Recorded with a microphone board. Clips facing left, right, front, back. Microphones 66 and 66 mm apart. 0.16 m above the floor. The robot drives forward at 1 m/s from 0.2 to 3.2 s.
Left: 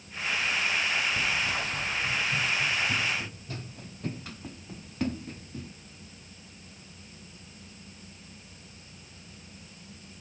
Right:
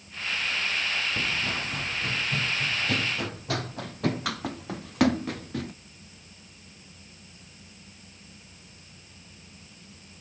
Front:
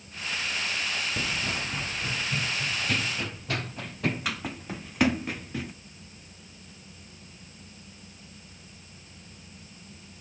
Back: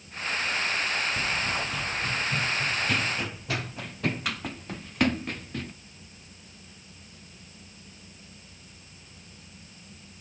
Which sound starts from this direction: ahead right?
Running footsteps, at 1.2 s.